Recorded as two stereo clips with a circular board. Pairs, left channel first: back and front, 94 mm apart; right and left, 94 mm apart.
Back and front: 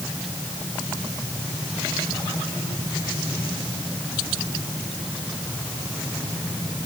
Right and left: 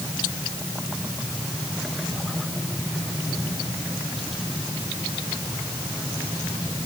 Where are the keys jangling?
I don't hear keys jangling.